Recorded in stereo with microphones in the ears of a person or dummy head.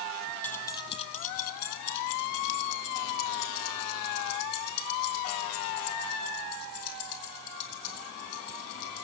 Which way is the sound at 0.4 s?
5° left (ahead or behind).